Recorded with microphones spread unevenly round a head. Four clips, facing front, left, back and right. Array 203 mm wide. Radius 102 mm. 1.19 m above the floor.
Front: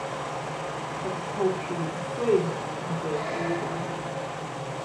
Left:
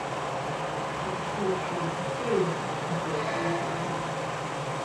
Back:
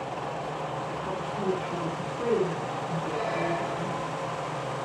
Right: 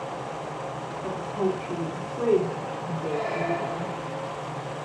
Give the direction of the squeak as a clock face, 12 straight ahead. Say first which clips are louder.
Right 3 dB, even; 2 o'clock.